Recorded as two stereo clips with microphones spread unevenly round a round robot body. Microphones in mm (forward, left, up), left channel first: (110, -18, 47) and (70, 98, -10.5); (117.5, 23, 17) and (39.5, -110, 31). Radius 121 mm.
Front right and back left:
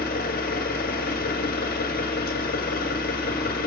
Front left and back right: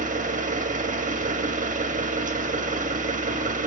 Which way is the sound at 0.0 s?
80° right.